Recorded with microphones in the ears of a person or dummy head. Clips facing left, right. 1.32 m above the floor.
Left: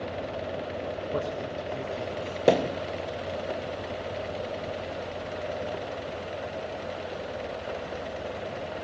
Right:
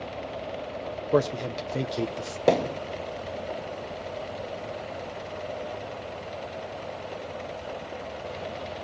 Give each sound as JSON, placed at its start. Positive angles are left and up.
{"t": 1.1, "sound": "a man speaking", "side_deg": -70, "distance_m": 1.0}
{"t": 2.5, "sound": "a thud", "side_deg": 5, "distance_m": 0.7}